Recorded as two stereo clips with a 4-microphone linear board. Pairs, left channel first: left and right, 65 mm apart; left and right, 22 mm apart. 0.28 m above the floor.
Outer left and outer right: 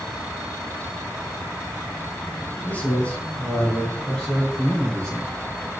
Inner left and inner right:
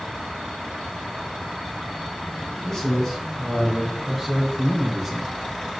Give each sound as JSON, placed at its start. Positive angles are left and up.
{"t": 2.6, "sound": "a man speaking", "side_deg": 30, "distance_m": 3.0}